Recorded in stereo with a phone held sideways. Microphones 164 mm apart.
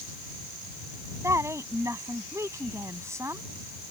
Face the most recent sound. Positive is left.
turn(degrees=-15)  # may be behind; listen again after turning